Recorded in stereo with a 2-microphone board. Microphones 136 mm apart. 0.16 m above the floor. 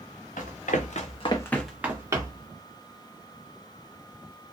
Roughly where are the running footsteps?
Left.